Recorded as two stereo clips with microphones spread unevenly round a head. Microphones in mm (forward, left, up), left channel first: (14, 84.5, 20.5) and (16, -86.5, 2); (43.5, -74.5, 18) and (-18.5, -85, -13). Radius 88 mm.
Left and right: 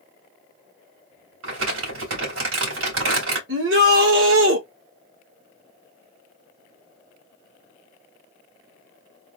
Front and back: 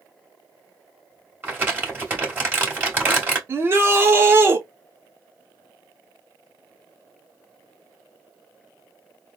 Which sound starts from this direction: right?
Crumpling, at 1.4 s.